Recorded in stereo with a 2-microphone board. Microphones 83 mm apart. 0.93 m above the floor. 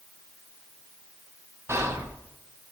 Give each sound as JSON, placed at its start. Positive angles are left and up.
{"t": 1.7, "sound": "whispering", "side_deg": -35, "distance_m": 0.9}